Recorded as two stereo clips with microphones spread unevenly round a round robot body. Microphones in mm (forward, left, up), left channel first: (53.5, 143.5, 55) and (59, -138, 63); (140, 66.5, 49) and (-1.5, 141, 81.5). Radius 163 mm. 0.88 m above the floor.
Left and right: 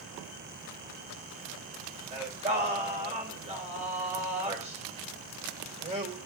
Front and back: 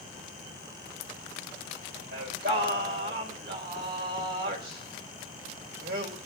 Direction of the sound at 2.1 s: 160° right.